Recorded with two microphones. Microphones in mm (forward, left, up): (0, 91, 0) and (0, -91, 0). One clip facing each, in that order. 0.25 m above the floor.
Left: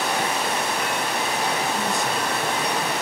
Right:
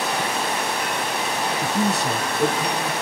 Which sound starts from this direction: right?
A man speaking, at 1.6 s.